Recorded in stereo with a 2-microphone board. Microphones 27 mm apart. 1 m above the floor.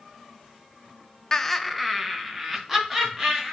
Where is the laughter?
20° left (ahead or behind), 0.5 m; by 3.5 s 15° right (ahead or behind), 3.5 m.